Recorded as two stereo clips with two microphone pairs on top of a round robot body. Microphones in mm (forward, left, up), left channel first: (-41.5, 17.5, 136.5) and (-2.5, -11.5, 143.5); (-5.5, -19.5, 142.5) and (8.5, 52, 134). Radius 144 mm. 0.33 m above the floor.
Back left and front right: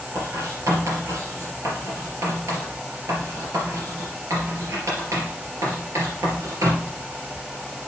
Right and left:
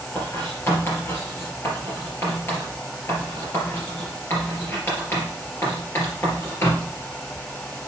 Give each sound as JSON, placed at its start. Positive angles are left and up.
{"t": 0.1, "sound": "writing", "azimuth_deg": -45, "distance_m": 3.5}